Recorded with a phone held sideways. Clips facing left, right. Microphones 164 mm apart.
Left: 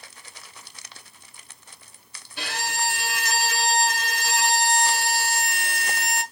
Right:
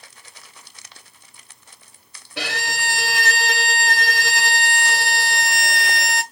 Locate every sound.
2.4 s a violin: 80° right, 0.8 m